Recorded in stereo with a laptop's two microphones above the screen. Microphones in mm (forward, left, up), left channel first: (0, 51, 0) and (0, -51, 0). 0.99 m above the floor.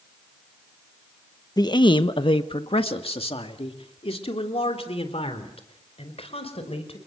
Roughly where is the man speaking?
Left.